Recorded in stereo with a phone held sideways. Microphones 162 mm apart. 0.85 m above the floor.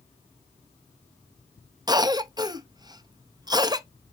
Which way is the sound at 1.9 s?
25° right (ahead or behind).